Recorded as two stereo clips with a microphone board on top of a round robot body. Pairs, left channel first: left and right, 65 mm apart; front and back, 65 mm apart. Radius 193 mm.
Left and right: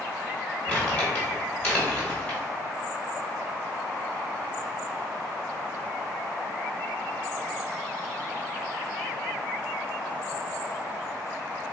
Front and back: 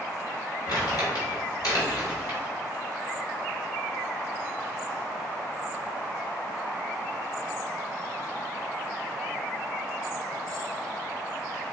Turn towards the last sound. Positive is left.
turn(degrees=25)